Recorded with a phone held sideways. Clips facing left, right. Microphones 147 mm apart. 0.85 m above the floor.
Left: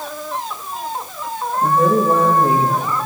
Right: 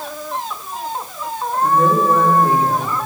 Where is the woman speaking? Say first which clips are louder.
Even; 30° left (ahead or behind), 3.5 m.